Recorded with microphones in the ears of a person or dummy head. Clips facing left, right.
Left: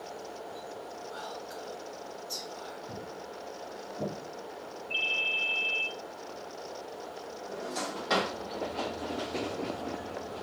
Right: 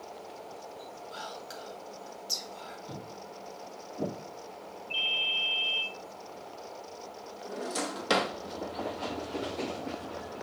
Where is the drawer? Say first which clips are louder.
Right 3 dB; 45° right (ahead or behind), 0.7 m.